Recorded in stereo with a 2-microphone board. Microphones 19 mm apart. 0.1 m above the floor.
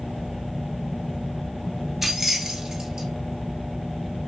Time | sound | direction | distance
2.0 | keys jangling | 10° right (ahead or behind) | 1.0 m